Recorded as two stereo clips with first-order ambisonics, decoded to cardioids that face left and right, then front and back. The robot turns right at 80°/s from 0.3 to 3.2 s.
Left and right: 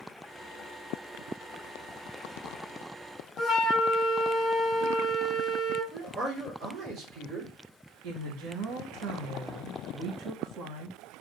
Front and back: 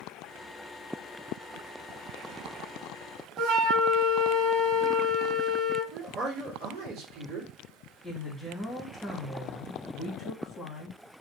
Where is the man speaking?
135° right, 2.5 m.